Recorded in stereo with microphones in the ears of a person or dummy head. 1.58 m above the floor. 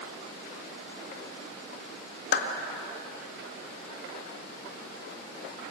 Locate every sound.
2.3 s a clap: 55° left (ahead or behind), 2 m